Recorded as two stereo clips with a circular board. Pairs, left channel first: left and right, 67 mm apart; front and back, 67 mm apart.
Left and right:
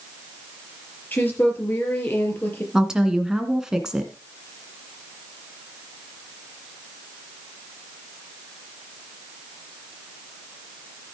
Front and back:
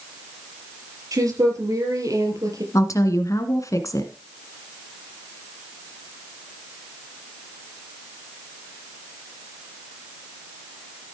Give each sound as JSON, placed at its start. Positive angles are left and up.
{"t": 1.1, "sound": "a woman speaking", "azimuth_deg": 150, "distance_m": 4.0}
{"t": 2.7, "sound": "a woman speaking", "azimuth_deg": -10, "distance_m": 2.0}